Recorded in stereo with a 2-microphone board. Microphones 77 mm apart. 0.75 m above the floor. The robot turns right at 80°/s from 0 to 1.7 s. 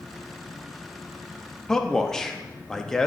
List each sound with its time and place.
1.7 s a man speaking: 10° left (ahead or behind), 0.7 m; by 3.1 s 5° left (ahead or behind), 0.7 m